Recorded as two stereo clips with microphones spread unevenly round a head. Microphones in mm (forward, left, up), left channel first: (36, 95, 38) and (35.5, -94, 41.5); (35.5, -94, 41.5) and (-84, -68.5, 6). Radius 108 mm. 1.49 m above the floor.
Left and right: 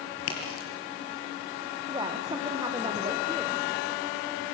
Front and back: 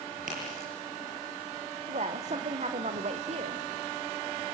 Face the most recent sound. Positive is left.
turn(degrees=-165)